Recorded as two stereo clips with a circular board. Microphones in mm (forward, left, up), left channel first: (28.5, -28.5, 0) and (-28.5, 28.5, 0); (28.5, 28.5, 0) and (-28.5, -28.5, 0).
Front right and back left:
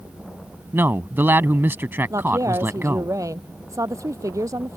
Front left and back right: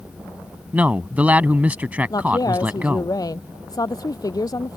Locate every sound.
0.7 s a man speaking: 170° left
2.1 s a woman speaking: 85° left